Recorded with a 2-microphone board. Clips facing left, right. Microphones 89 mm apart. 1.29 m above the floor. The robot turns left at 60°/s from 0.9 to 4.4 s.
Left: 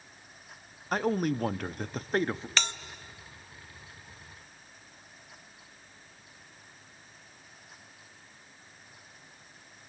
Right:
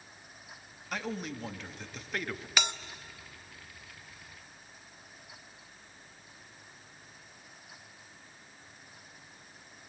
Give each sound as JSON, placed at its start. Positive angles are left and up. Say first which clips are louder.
{"t": 0.9, "sound": "a man speaking", "louder": "left 9 dB", "azimuth_deg": 125, "distance_m": 0.5}
{"t": 2.6, "sound": "a bell", "louder": "right 2 dB", "side_deg": -10, "distance_m": 0.6}